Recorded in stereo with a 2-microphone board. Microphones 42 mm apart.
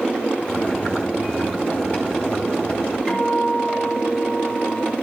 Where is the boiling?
25° left (ahead or behind), 4.5 m.